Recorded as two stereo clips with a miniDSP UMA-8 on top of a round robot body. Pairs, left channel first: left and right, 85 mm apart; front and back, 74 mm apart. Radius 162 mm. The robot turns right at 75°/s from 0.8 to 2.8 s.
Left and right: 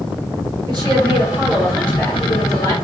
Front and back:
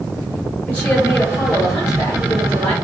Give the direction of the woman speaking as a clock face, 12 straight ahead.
2 o'clock.